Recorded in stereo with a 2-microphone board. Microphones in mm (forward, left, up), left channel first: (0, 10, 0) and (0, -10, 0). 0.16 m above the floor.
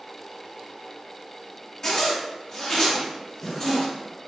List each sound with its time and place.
1.8 s a zipper: 30° left (ahead or behind), 1.8 m